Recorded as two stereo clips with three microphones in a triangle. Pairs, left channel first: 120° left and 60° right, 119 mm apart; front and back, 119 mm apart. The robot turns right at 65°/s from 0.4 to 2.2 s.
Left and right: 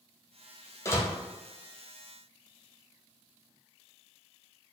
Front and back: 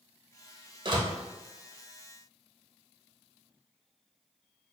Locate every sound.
0.8 s a door slam: 170° left, 0.7 m; by 1.1 s 175° right, 0.7 m